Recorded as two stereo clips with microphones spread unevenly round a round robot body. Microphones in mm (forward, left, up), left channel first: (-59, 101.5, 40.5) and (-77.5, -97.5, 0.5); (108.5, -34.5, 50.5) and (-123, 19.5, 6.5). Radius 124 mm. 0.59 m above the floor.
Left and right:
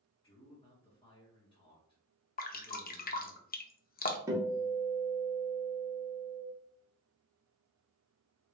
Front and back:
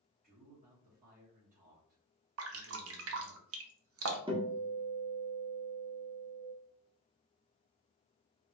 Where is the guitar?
145° right, 1.1 m.